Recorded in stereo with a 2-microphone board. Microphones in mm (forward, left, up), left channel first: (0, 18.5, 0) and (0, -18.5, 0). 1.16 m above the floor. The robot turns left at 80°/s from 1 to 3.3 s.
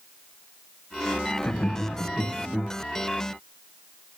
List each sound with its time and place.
1.4 s laughter: 70° left (ahead or behind), 0.8 m; by 2.7 s 30° right (ahead or behind), 0.8 m